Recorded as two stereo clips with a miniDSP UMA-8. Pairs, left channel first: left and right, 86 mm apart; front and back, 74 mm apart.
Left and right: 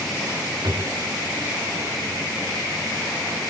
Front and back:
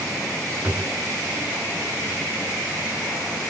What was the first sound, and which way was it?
A drawer, 115° right.